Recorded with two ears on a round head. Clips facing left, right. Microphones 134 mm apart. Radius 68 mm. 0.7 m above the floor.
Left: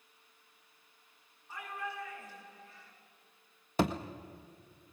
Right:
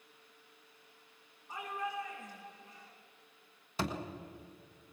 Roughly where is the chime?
I don't hear a chime.